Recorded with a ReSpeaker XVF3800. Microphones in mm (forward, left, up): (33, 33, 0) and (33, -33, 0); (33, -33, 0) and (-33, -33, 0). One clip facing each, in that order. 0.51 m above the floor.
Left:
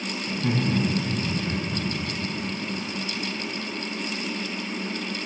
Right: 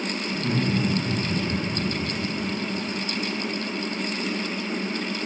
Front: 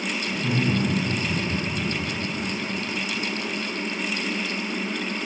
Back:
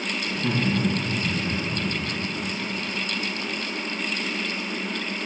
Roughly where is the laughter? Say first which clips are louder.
Left 1 dB, even; behind left.